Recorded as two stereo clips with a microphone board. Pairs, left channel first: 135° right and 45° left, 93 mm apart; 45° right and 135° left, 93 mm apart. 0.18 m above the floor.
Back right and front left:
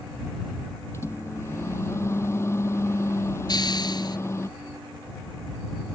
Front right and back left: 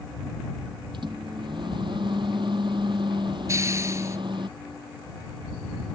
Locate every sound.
0.9 s a microwave: 165° left
3.5 s a hiss: 170° right